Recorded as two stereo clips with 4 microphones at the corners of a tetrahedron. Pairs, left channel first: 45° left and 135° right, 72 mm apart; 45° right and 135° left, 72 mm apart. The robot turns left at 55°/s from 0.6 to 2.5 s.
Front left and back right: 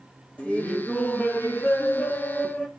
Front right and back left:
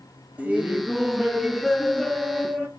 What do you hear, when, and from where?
0.4 s laughter: 95° left, 1.0 m; by 2.7 s 10° right, 1.0 m